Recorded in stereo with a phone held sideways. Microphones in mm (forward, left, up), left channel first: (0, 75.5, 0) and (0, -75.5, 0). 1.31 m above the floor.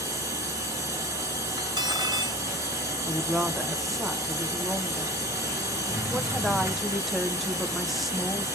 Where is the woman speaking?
Centre (ahead or behind), 0.8 m.